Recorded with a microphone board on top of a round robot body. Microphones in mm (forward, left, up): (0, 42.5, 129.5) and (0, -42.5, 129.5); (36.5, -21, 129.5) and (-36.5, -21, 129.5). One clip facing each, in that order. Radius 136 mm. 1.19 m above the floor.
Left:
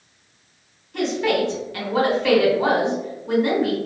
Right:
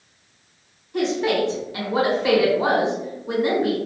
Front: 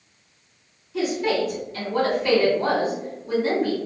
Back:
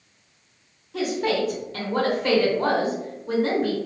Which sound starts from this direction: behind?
A woman speaking, at 0.9 s.